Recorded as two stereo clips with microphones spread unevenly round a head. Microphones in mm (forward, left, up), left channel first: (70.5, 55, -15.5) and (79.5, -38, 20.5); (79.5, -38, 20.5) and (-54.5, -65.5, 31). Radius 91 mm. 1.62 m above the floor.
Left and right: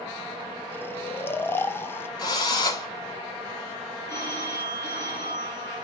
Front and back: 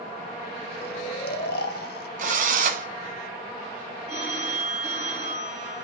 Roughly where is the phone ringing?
Behind left.